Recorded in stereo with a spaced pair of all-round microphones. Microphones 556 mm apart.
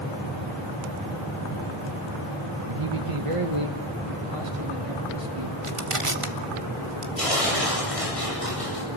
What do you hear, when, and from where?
2.7 s a man speaking: 60° right (ahead or behind), 1.3 m; by 5.5 s 70° right (ahead or behind), 3 m
5.6 s crushing: 65° right (ahead or behind), 1.8 m
7.2 s tearing paper: 80° left, 9.5 m